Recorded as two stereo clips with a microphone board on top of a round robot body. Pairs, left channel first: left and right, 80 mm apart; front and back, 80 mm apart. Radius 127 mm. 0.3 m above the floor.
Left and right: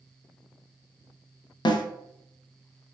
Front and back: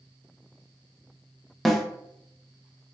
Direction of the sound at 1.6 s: 90° left.